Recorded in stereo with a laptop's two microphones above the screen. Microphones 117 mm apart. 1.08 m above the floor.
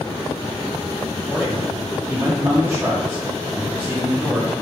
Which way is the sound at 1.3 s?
15° right (ahead or behind).